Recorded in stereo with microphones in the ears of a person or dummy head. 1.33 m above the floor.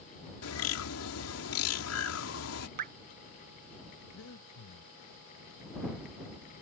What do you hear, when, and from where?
0.4 s a bird: 80° left
2.8 s dripping: 50° right (ahead or behind)
4.1 s breathing: 75° left (ahead or behind)